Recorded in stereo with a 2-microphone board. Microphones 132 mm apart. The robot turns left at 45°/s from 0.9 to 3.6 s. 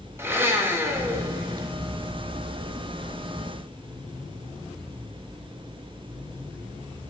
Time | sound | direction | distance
0.2 | a blender | 15° right (ahead or behind) | 0.7 m